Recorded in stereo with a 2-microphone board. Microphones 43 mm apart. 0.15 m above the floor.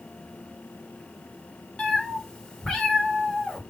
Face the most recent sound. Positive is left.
turn(degrees=15)  # may be behind; listen again after turning